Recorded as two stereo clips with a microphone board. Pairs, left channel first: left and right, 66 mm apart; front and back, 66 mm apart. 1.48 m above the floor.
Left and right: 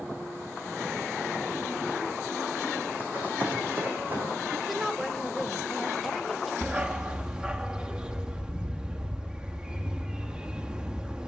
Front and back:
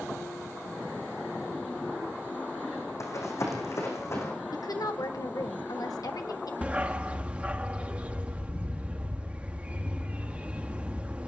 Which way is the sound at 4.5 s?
Straight ahead.